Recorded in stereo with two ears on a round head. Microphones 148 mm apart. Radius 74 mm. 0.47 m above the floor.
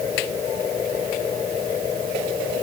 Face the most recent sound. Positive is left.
No sound to turn to.